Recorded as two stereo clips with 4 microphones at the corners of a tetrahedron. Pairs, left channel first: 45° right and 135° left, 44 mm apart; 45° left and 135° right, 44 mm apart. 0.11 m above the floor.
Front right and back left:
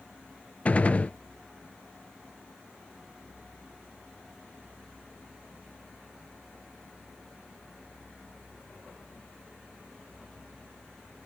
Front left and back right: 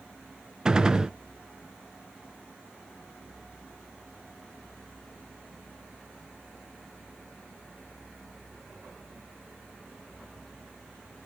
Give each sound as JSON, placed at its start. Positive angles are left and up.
{"t": 0.7, "sound": "a gunshot", "azimuth_deg": -75, "distance_m": 0.6}